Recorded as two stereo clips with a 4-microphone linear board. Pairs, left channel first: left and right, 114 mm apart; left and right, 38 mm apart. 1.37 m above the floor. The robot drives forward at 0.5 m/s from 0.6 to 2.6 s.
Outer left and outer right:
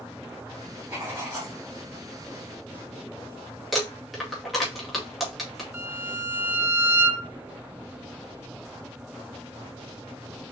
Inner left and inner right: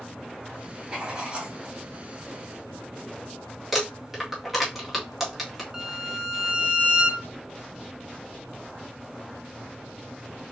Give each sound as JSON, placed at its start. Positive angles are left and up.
{"t": 0.9, "sound": "writing", "side_deg": -20, "distance_m": 2.5}
{"t": 3.7, "sound": "crumpling", "side_deg": 0, "distance_m": 1.9}
{"t": 5.7, "sound": "a violin", "side_deg": -15, "distance_m": 1.0}